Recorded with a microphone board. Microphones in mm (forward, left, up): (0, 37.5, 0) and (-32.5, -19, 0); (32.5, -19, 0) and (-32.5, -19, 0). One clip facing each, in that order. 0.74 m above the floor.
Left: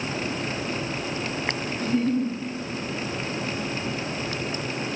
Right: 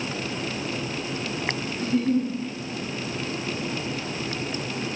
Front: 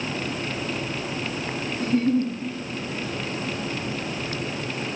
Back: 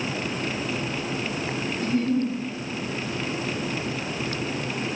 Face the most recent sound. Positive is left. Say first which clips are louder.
# right 1 dB, front 2 dB
turn(degrees=-30)